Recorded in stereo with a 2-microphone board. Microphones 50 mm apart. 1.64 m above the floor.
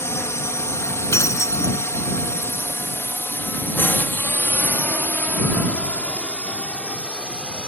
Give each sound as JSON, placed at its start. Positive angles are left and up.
{"t": 0.0, "sound": "a drone", "side_deg": 65}
{"t": 1.1, "sound": "breaking glass", "side_deg": 85}